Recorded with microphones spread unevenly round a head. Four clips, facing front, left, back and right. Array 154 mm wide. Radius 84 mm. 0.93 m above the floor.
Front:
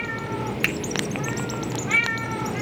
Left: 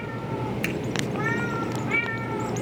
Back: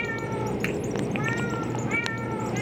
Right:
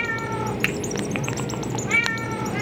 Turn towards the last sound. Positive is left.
turn(degrees=-40)